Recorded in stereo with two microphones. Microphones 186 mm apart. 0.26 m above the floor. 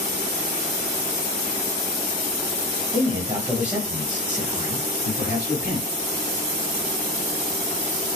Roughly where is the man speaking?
Right.